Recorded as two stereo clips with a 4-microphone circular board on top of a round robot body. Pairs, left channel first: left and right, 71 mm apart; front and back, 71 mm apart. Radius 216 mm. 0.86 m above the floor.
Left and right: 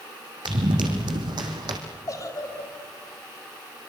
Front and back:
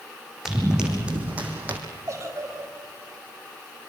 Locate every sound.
0.5 s running footsteps: 95° right, 3 m; by 1.8 s 115° right, 2.5 m
2.1 s a giggle: 130° left, 5 m